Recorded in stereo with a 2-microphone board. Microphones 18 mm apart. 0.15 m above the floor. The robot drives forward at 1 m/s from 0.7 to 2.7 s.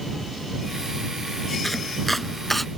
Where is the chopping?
10° left (ahead or behind).